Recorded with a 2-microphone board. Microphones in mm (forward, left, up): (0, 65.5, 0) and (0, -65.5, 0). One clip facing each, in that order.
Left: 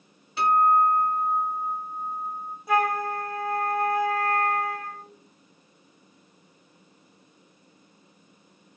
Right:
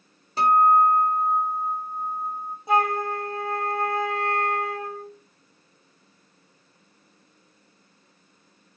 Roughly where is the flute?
Right.